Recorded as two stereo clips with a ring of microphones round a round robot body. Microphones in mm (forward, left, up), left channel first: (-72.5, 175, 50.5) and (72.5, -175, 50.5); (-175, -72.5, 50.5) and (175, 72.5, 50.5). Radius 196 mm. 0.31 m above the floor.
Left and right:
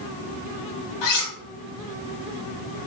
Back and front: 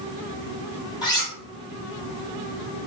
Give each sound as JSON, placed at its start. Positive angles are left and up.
{"t": 1.0, "sound": "cutlery clinking", "azimuth_deg": 125, "distance_m": 1.3}